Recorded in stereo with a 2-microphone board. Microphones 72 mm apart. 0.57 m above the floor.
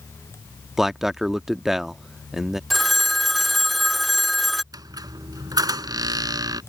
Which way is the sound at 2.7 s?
Centre (ahead or behind).